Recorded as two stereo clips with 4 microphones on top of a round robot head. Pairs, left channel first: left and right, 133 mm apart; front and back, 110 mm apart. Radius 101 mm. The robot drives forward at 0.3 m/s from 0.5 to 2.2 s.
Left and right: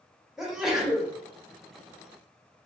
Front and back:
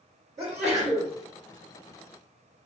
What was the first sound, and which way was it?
A sneeze, 175° right.